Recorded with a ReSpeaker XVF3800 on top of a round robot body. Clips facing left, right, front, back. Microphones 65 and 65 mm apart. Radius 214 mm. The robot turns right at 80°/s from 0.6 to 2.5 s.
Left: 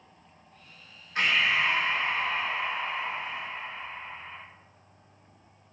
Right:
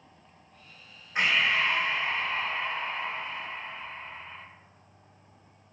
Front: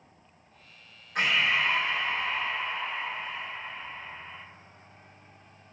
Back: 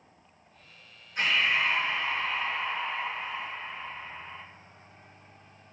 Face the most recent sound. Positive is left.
turn(degrees=90)